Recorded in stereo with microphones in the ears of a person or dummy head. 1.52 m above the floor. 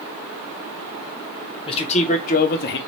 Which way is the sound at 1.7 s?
30° left (ahead or behind).